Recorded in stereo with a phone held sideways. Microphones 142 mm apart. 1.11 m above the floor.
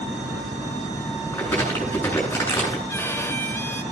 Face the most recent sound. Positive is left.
turn(degrees=15)  # may be behind; listen again after turning